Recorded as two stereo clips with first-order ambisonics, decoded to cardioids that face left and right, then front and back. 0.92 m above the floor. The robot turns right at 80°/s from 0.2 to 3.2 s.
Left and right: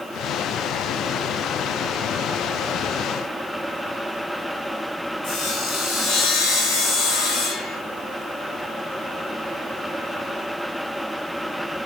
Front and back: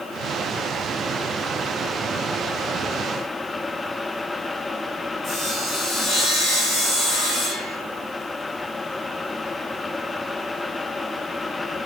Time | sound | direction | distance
5.2 | sawing | 110° left | 2.0 m